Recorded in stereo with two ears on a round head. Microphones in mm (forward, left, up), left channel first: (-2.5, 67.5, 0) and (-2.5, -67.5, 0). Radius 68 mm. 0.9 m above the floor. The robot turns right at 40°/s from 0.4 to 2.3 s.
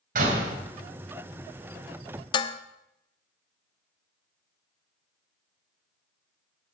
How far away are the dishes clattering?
About 0.5 m.